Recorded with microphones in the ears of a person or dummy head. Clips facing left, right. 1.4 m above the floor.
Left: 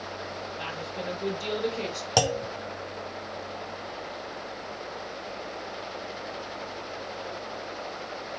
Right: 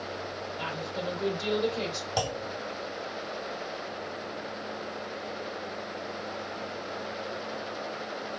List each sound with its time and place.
0.6 s a woman speaking: 75° right (ahead or behind), 3.5 m
2.2 s a clunk: 65° left (ahead or behind), 0.7 m